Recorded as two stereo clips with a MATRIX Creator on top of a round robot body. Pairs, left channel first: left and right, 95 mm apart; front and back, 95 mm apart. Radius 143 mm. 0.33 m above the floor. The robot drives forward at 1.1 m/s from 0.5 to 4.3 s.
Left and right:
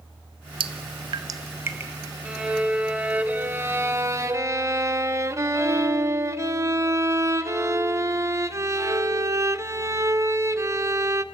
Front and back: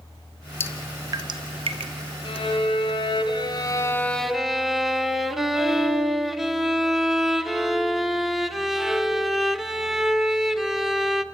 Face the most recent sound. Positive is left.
turn(degrees=-95)